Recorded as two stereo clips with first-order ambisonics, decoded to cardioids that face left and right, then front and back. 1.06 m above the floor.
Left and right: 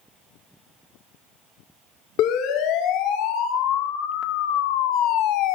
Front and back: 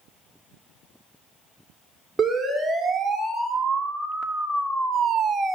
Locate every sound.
2.2 s a siren: 95° left, 3 m; by 5.5 s 110° left, 0.9 m